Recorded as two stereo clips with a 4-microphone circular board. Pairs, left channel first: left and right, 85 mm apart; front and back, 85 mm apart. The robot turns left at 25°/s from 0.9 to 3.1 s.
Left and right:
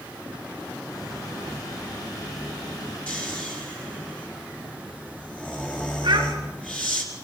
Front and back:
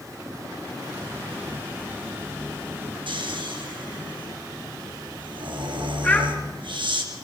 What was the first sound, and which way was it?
Snoring, 165° left.